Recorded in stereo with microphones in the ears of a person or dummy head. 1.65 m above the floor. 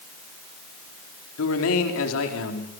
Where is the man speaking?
85° left, 4.5 m.